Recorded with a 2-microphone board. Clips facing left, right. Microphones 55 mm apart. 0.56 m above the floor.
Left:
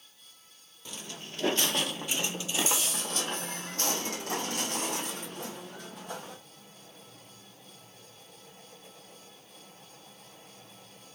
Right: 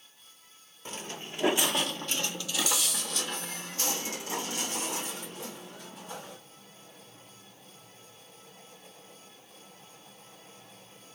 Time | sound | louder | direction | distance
0.8 | footsteps | right 3 dB | 40° right (ahead or behind) | 0.6 m